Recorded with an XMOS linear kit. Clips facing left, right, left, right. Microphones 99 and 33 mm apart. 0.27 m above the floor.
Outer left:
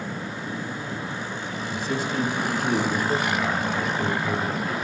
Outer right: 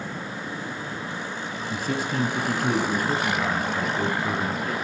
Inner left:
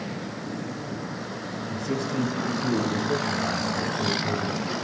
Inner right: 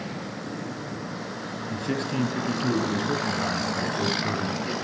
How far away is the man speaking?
About 1.9 m.